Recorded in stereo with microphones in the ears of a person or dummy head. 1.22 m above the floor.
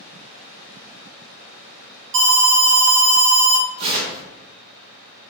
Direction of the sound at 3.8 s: 35° right (ahead or behind).